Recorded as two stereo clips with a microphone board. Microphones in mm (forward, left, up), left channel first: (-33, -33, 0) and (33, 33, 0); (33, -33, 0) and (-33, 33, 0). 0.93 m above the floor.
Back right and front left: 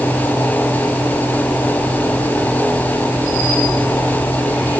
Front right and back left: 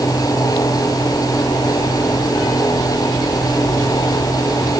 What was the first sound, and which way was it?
Only background noise.